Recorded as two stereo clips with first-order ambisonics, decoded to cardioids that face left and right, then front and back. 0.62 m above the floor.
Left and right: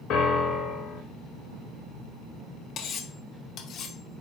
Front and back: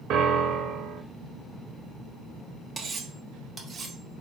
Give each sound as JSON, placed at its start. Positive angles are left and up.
{"t": 0.1, "sound": "a piano", "azimuth_deg": 135, "distance_m": 0.7}
{"t": 2.8, "sound": "cutlery clinking", "azimuth_deg": 120, "distance_m": 0.5}